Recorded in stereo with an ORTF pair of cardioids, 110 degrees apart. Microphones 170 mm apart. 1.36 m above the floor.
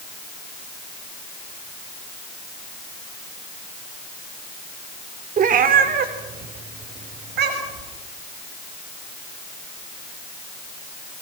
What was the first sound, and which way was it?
A cat meowing, 50° right.